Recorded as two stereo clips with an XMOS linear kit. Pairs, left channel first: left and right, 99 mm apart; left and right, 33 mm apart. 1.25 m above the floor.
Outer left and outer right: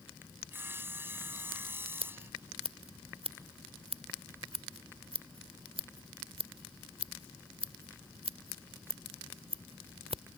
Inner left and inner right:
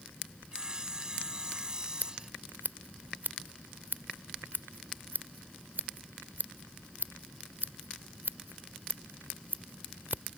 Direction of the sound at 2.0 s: 80° right.